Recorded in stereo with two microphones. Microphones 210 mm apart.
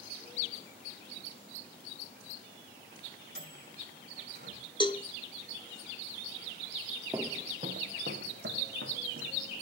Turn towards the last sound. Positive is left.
turn(degrees=-75)  # may be behind; listen again after turning